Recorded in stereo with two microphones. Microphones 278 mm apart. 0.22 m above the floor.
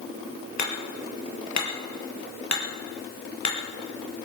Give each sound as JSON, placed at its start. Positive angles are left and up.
{"t": 0.6, "sound": "hammering", "side_deg": 75, "distance_m": 3.5}